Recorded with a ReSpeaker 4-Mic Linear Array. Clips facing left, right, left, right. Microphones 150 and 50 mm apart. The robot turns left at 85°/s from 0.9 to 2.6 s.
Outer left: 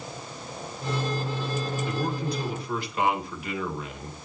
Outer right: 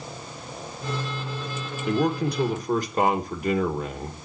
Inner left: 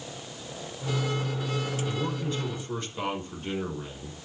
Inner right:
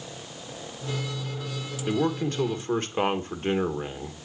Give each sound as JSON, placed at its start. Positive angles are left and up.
{"t": 1.9, "sound": "a man speaking", "azimuth_deg": -70, "distance_m": 1.6}